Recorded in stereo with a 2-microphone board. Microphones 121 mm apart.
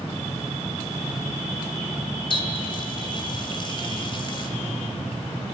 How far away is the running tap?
About 1.8 m.